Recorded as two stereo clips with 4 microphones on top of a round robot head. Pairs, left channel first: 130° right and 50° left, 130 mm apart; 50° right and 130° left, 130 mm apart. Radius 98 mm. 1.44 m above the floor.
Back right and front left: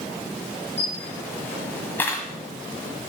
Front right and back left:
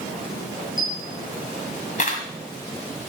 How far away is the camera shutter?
About 1.5 m.